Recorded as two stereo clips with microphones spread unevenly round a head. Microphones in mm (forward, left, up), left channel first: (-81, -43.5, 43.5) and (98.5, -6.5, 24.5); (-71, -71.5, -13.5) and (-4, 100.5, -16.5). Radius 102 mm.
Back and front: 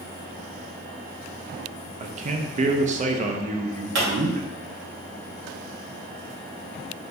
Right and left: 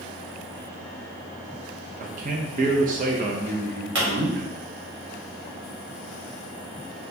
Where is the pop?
30° left, 2.0 m.